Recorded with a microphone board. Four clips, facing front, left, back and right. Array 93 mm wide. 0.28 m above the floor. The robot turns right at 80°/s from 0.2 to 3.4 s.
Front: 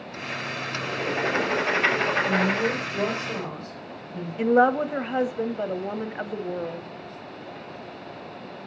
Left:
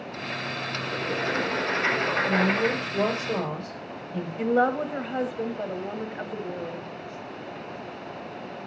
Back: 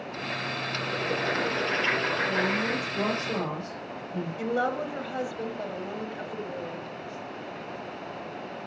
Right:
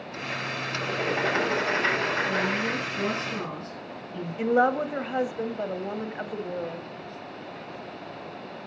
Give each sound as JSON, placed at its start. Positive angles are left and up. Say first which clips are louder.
{"t": 0.8, "sound": "writing", "louder": "right 3 dB, front 3 dB", "azimuth_deg": -75, "distance_m": 6.5}
{"t": 2.2, "sound": "a woman speaking", "louder": "left 3 dB, front 3 dB", "azimuth_deg": 25, "distance_m": 6.5}
{"t": 4.4, "sound": "a woman speaking", "louder": "right 1 dB, front 9 dB", "azimuth_deg": -15, "distance_m": 1.1}